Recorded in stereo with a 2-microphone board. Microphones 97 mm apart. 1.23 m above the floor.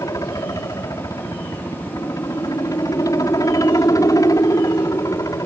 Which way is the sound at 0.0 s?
35° left (ahead or behind).